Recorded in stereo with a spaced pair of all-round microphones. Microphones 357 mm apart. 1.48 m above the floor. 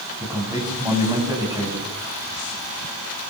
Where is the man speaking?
10° right (ahead or behind), 8.5 m.